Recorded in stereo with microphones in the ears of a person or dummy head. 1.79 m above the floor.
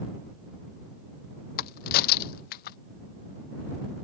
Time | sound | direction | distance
1.6 | a crack | 50° left (ahead or behind) | ?